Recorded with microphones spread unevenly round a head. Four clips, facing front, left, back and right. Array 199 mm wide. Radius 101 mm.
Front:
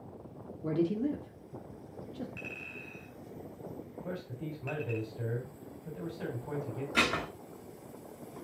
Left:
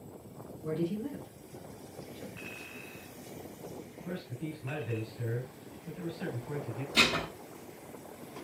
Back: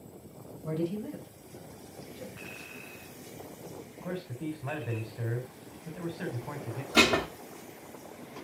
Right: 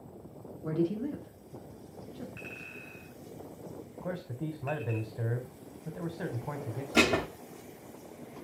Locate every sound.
0.6 s a man speaking: 20° right, 3.5 m
2.4 s a clink: 30° right, 5.5 m
4.0 s a man speaking: 110° right, 3.5 m
6.9 s dishes clattering: 130° right, 1.5 m